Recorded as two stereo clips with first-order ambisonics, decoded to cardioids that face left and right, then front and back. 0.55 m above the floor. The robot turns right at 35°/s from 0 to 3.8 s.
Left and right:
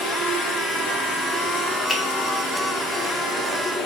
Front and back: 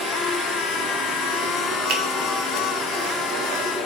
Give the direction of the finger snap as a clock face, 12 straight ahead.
6 o'clock.